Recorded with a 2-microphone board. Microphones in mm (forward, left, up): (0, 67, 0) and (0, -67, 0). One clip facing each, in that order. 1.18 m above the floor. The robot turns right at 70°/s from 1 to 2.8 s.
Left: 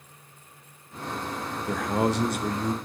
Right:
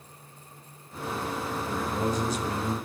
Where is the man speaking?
75° left, 1.0 m; by 2.7 s 150° left, 1.0 m.